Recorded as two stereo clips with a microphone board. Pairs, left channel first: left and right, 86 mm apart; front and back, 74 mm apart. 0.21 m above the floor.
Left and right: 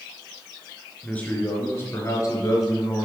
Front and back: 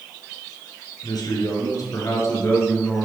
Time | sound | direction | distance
1.0 | a man speaking | 15° left | 3 m